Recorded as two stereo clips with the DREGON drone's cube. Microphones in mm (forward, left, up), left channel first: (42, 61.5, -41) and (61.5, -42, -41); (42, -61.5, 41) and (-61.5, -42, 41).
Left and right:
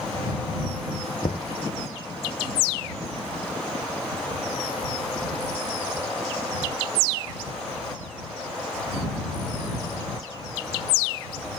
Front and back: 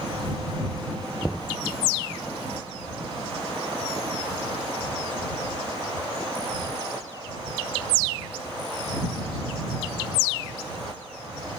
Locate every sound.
1.2 s knocking: 75° left